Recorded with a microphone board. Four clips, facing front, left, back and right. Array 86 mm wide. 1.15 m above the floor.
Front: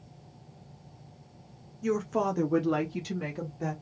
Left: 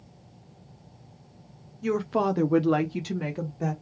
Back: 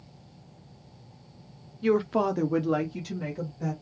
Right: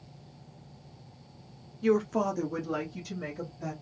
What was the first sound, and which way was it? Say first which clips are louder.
A woman speaking: left 1 dB, back 4 dB; 160° right.